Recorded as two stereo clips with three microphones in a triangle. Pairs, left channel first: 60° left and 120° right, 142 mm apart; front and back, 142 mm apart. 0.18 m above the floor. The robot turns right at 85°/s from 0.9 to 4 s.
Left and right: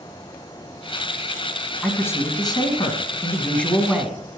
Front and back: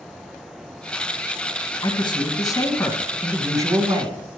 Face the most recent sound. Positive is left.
turn(degrees=165)